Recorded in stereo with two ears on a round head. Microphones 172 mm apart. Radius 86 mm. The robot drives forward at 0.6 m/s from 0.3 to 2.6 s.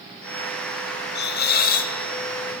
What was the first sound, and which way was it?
A hiss, 60° left (ahead or behind).